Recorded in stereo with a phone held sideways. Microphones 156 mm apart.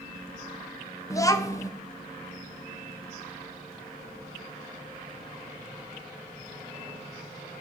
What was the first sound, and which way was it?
A child speaking, 20° left (ahead or behind).